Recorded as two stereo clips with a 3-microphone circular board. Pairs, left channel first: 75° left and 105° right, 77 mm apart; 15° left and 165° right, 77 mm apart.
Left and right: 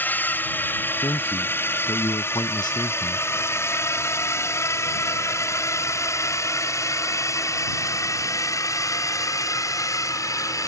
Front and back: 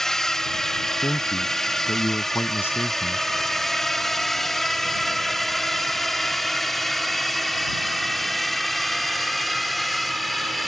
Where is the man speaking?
75° left.